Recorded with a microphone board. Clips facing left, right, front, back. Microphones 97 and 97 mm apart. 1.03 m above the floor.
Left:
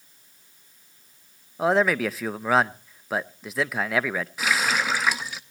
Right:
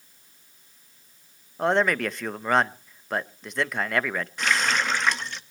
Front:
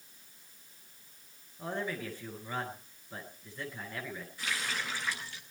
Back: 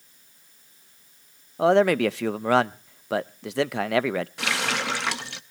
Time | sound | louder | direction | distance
1.6 | a man speaking | left 1 dB, back 19 dB | 175° left | 0.6 m
4.4 | a running tap | even, back 10 dB | 175° left | 0.8 m